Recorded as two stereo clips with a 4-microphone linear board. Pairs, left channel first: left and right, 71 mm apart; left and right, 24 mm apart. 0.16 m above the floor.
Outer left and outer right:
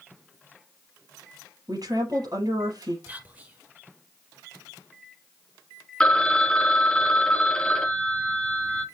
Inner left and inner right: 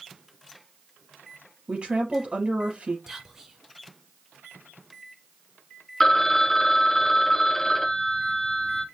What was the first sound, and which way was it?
A woman speaking, 65° right (ahead or behind).